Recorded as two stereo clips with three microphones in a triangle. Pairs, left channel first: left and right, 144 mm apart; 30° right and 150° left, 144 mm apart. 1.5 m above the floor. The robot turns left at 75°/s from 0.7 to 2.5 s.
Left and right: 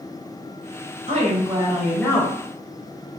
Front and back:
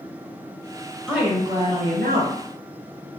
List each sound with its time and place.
1.1 s a woman speaking: 125° right, 0.9 m; by 2.4 s 140° left, 0.9 m